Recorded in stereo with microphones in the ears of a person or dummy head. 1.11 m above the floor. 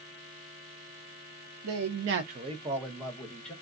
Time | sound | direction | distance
1.6 | a man speaking | 75° right (ahead or behind) | 0.6 m